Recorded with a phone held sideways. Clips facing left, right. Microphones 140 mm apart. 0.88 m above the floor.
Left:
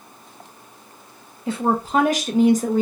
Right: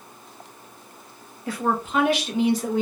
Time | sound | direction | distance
1.5 | a woman speaking | 25° left (ahead or behind) | 0.6 m